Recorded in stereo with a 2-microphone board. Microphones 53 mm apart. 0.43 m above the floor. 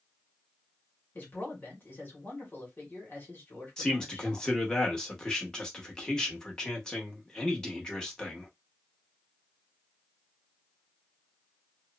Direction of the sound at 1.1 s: 35° left (ahead or behind).